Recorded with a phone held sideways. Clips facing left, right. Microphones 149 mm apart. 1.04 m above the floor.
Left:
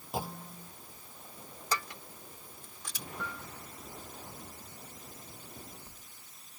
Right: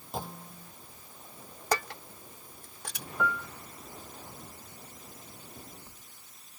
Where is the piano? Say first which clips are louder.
Right 12 dB; 75° right (ahead or behind).